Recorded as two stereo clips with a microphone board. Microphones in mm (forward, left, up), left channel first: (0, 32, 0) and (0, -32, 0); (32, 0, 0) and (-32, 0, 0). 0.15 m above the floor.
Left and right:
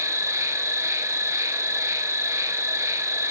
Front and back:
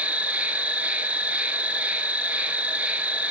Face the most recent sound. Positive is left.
turn(degrees=-115)